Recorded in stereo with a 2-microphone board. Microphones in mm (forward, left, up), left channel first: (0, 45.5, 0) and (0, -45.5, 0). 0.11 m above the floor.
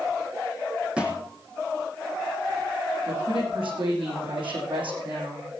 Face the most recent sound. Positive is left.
turn(degrees=-75)  # may be behind; listen again after turning